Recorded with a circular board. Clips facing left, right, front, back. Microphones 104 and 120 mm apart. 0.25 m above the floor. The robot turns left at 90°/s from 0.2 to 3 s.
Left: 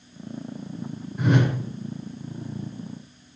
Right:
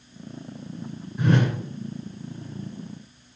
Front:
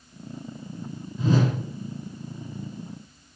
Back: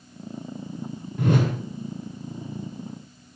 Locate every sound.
1.2 s a whoosh: 175° left, 2 m; by 1.5 s 145° left, 2 m